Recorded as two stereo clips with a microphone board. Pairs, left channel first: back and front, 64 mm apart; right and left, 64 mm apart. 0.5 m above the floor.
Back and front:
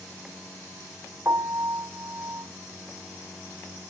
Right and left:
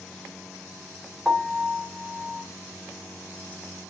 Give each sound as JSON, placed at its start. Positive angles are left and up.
{"t": 1.2, "sound": "a piano", "azimuth_deg": 10, "distance_m": 1.7}